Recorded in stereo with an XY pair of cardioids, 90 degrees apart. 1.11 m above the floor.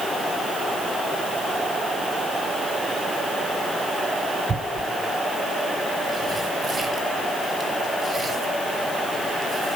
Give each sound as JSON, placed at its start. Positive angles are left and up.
{"t": 4.5, "sound": "tearing paper", "azimuth_deg": -45, "distance_m": 4.0}